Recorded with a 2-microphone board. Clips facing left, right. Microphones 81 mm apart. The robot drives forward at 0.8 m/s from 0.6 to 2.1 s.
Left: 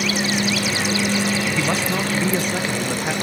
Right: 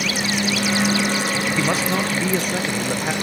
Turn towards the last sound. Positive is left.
turn(degrees=0)  # may be behind; listen again after turning